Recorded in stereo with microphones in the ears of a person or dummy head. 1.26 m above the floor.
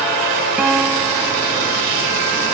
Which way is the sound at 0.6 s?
5° right (ahead or behind).